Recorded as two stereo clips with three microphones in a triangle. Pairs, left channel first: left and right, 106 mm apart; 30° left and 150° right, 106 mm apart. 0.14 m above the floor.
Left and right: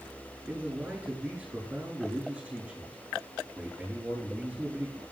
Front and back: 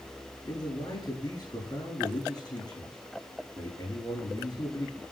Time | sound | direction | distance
0.5 | a man speaking | 10° right | 6.5 m